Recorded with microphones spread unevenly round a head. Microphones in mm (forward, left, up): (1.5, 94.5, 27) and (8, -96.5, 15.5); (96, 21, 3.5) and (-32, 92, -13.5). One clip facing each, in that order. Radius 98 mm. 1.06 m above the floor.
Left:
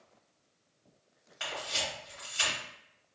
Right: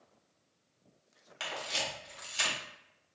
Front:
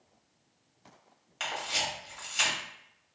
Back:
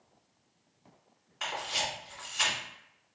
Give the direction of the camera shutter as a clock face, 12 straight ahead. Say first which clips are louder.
Left 1 dB, even; 2 o'clock.